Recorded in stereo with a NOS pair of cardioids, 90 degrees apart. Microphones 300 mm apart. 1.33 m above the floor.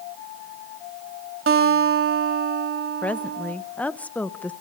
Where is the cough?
I don't hear a cough.